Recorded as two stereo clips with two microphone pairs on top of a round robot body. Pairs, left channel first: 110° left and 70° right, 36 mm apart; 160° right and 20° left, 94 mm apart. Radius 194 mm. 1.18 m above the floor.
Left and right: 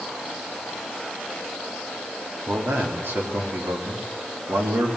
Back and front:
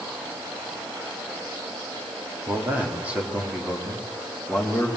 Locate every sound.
2.5 s a man speaking: 50° right, 4 m; by 4.9 s 75° right, 4.5 m